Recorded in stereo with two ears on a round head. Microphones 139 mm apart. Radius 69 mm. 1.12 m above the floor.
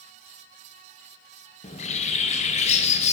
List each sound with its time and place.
1.6 s a bird: 45° left (ahead or behind), 0.7 m